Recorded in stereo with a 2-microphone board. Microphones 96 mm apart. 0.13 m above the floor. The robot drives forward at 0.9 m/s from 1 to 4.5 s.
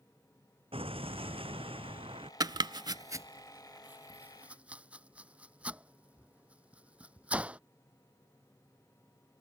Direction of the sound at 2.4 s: 45° right (ahead or behind).